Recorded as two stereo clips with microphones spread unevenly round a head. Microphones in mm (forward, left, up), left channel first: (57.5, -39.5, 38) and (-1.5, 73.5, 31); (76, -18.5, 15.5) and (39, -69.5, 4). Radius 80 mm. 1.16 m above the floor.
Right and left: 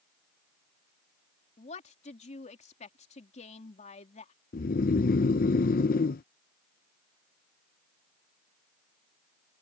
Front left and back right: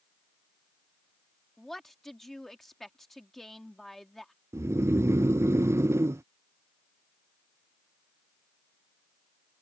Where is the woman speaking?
30° right.